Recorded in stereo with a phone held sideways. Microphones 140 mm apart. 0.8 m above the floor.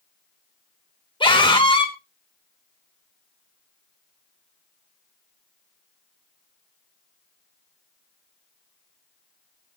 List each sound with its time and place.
1.2 s a scream: 35° left (ahead or behind), 3.5 m